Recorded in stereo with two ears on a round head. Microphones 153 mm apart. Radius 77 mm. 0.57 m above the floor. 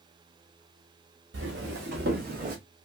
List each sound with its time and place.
1.3 s footsteps: 75° right (ahead or behind), 2 m; by 2.6 s 45° right (ahead or behind), 1.4 m